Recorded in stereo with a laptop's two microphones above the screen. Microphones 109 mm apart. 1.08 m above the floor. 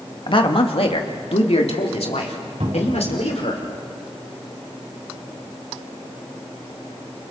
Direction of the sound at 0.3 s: 50° left (ahead or behind).